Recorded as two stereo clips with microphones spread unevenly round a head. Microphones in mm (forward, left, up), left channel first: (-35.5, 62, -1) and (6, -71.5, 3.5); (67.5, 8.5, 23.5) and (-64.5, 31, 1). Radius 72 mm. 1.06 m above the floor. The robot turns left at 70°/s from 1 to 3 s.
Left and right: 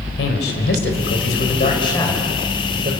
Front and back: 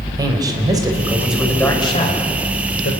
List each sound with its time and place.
0.2 s a man speaking: 105° left, 4.5 m; by 2.9 s 30° right, 4.5 m